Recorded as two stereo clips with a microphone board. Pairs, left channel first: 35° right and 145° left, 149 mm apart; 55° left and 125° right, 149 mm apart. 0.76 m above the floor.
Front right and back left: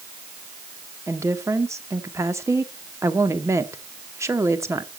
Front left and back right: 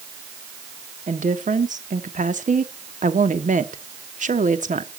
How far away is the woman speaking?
About 1.3 m.